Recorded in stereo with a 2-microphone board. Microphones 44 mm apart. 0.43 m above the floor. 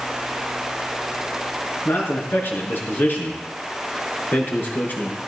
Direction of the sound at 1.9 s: 60° left (ahead or behind).